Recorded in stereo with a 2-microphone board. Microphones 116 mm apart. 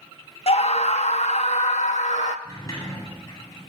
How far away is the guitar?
No guitar in this recording.